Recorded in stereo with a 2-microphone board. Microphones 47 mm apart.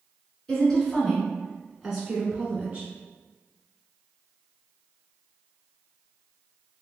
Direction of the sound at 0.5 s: 15° left (ahead or behind).